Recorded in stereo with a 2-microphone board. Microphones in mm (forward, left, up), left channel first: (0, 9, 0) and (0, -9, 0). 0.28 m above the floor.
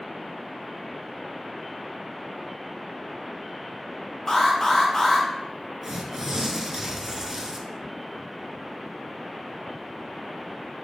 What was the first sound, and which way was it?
An alarm, 35° left (ahead or behind).